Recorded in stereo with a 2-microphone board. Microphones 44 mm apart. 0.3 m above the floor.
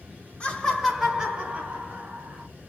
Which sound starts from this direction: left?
Laughter, at 0.4 s.